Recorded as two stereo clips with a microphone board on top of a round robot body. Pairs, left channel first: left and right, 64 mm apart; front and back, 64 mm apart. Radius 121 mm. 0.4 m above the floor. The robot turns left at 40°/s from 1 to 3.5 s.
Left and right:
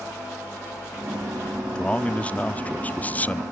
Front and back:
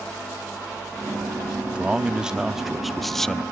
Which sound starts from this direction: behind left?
A man speaking, at 1.8 s.